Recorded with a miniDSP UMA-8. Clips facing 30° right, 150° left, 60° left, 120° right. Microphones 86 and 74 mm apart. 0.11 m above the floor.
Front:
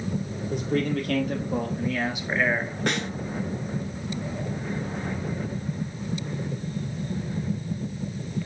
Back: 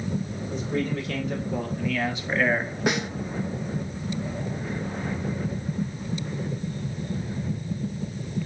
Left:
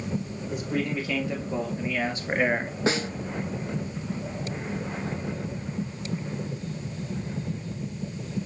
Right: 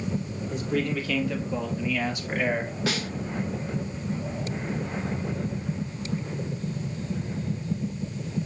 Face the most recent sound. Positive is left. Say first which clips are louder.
# back 3 dB, left 6 dB
turn(degrees=75)